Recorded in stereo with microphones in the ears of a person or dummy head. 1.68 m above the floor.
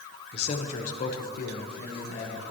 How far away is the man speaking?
About 1.4 m.